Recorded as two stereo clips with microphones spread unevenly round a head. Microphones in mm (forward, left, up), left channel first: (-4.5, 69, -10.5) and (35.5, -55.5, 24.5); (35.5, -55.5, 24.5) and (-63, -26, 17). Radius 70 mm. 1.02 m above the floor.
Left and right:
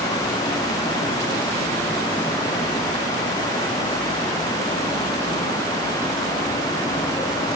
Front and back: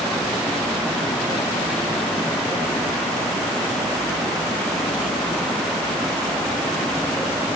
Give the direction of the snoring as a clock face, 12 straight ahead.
I don't hear snoring.